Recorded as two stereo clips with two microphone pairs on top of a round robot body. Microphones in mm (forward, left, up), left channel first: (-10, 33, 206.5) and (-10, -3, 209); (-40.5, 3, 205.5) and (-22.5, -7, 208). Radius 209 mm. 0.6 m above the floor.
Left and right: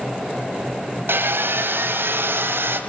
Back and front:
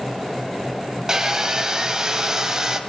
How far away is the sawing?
About 2.5 m.